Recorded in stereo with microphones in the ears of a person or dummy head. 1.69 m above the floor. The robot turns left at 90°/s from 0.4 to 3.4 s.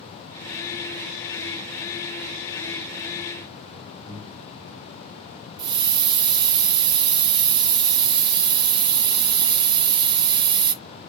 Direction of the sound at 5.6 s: 25° right (ahead or behind).